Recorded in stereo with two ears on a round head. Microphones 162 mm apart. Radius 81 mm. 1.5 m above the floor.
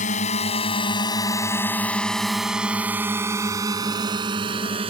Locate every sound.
0.0 s a drone: 40° left (ahead or behind); by 4.9 s 30° right (ahead or behind)